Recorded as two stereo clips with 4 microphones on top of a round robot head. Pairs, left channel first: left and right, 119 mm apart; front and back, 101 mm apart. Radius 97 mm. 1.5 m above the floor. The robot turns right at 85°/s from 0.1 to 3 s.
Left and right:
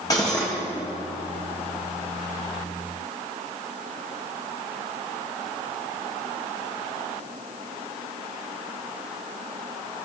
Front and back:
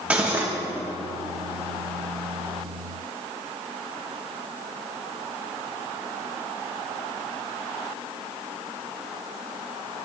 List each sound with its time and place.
0.1 s cutlery clinking: 120° left, 0.7 m; by 0.5 s 160° left, 0.7 m